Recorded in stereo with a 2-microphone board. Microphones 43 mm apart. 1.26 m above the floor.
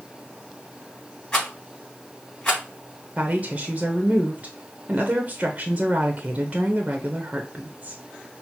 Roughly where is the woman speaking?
Right.